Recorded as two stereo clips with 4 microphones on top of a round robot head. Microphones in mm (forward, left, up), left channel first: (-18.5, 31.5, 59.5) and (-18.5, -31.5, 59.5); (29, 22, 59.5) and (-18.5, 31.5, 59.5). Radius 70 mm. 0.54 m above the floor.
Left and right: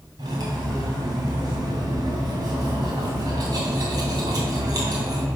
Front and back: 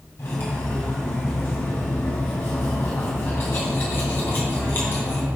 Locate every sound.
0.2 s cutlery clinking: 60° right, 2.5 m